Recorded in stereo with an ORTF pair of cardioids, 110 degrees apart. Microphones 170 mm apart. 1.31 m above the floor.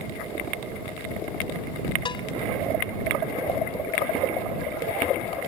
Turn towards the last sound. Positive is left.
turn(degrees=30)